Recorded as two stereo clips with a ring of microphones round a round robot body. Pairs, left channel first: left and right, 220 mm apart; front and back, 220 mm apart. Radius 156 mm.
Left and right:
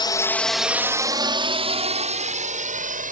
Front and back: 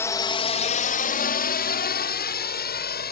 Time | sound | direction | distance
0.0 | a drone | 60° left | ?